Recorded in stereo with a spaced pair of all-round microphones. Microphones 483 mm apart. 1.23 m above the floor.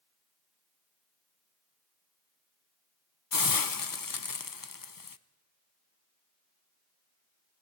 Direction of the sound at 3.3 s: 40° left (ahead or behind).